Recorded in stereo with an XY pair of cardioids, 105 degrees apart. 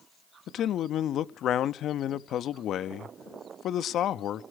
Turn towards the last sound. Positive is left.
turn(degrees=65)